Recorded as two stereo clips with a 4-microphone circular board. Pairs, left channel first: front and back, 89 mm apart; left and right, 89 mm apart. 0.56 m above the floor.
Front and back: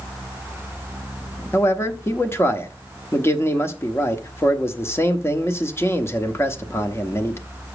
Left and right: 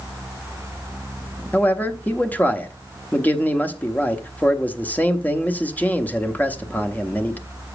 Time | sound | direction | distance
1.5 | a man speaking | 35° left | 0.9 m